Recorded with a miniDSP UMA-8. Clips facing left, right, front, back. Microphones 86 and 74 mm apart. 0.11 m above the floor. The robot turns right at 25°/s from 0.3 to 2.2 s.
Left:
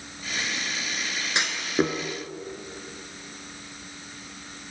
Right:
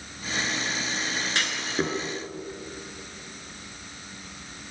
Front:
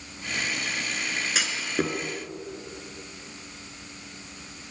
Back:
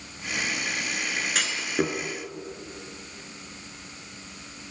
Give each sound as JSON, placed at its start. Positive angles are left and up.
{"t": 1.4, "sound": "a clunk", "azimuth_deg": 75, "distance_m": 1.2}